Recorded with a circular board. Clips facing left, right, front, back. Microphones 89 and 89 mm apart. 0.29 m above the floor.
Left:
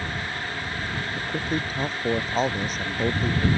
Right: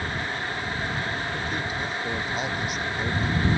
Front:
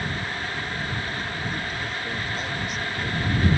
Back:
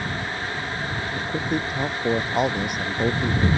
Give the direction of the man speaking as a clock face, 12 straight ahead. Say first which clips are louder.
Left 2 dB, back 5 dB; 7 o'clock.